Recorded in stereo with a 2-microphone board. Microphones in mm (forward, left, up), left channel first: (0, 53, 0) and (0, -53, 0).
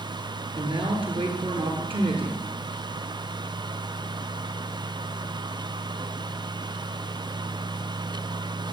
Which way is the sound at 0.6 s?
55° right (ahead or behind).